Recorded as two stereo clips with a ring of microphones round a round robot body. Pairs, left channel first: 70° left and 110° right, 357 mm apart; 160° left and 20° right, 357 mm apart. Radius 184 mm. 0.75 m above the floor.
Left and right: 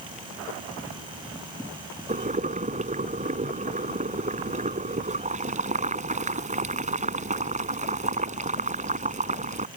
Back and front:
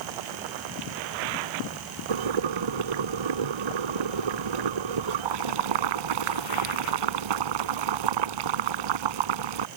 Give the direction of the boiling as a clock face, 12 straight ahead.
1 o'clock.